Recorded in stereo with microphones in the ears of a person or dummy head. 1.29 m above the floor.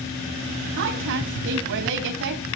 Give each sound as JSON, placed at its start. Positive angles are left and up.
{"t": 0.8, "sound": "a woman speaking", "side_deg": -60, "distance_m": 2.5}